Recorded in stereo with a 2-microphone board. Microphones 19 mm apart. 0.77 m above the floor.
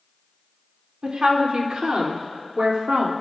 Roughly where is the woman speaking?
Right.